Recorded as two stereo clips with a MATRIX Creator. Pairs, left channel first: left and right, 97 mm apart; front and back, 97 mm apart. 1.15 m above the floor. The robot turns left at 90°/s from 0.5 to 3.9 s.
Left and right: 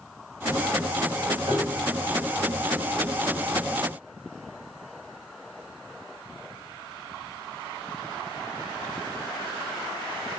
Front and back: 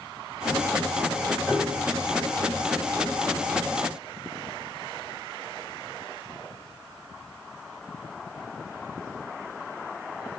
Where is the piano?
110° right, 6 m; by 1.9 s 145° right, 6 m.